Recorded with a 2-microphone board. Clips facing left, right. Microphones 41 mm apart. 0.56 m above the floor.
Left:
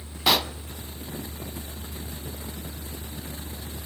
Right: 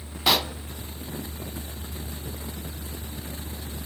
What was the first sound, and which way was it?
A pop, centre (ahead or behind).